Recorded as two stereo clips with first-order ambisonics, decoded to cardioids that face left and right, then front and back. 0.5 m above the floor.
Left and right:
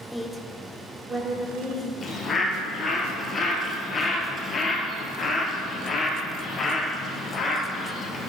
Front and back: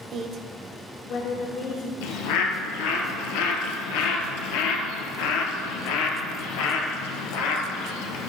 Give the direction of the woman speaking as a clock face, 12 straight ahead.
6 o'clock.